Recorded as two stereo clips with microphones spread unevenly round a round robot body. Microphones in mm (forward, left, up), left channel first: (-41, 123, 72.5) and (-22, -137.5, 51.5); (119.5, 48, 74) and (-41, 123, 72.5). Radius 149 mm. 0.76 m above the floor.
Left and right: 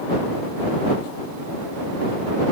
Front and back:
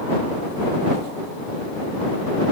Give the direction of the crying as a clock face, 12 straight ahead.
No crying in this recording.